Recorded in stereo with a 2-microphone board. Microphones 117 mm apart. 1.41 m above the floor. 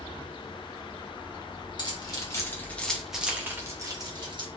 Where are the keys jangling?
40° left (ahead or behind), 1.2 m; by 4.5 s 45° right (ahead or behind), 1.2 m.